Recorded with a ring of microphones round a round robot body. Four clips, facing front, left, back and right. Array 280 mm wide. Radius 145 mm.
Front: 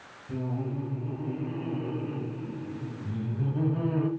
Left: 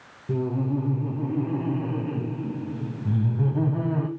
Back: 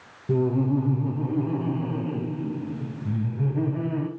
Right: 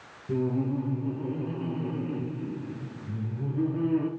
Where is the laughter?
155° left, 3.5 m; by 4.1 s 95° left, 3 m.